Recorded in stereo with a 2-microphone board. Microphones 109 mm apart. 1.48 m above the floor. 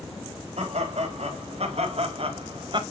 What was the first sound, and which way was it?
Laughter, 80° right.